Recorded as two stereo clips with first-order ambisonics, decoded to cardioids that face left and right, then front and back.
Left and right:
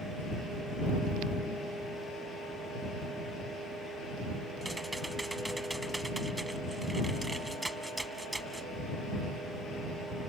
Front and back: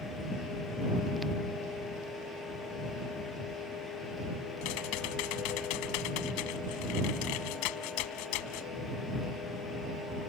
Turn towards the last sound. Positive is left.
turn(degrees=-5)